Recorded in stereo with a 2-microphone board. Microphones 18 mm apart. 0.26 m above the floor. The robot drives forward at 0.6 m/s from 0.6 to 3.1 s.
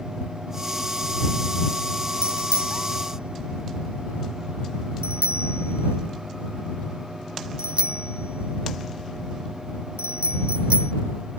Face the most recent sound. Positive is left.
turn(degrees=-80)